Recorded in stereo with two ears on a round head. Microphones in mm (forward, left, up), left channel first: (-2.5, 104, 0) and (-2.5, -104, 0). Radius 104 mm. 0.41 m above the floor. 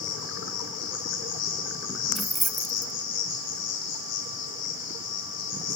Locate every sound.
0.0 s an insect: 75° left (ahead or behind), 4.5 m
2.1 s keys jangling: centre (ahead or behind), 0.5 m